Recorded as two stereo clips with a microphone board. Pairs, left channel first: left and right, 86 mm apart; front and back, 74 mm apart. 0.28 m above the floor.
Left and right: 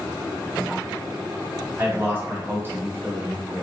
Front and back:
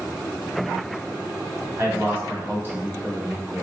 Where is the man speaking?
140° right, 1.8 m.